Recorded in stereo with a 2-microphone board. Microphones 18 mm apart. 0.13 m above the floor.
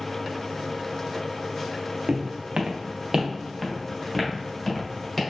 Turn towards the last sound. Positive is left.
turn(degrees=15)  # may be behind; listen again after turning